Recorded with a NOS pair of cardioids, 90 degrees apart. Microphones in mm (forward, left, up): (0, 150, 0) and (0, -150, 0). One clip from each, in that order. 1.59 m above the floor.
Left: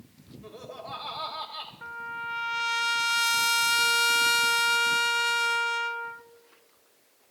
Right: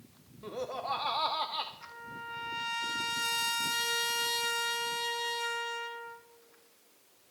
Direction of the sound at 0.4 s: 30° right.